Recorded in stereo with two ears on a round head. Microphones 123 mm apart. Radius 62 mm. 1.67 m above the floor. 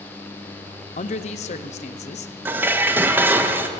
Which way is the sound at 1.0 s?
50° left (ahead or behind).